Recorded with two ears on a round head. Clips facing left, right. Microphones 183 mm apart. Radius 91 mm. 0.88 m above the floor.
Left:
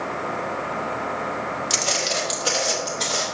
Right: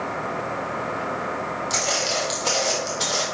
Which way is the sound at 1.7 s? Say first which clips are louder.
Even; 40° left (ahead or behind).